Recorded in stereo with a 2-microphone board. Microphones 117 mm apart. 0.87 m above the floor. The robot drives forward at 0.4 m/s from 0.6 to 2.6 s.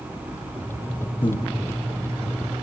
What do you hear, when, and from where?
1.2 s breathing: 40° left (ahead or behind), 0.7 m; by 1.5 s 45° left (ahead or behind), 0.6 m